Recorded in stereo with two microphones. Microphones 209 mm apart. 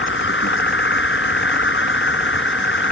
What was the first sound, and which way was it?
An insect, 70° left (ahead or behind).